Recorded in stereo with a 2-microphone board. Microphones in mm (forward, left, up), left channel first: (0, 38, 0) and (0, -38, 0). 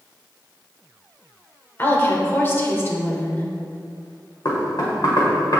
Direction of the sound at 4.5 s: 60° left (ahead or behind).